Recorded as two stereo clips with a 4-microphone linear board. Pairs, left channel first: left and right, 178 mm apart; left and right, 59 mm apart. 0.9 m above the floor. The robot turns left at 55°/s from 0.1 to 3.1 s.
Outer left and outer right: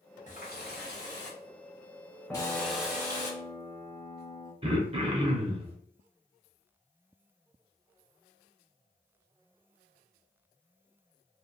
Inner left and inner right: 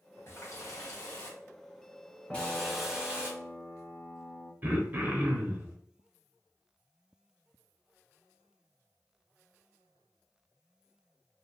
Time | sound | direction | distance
0.3 | a running tap | 135° left | 1.3 m
2.3 | a piano | 170° left | 0.6 m
4.6 | throat clearing | 35° right (ahead or behind) | 0.7 m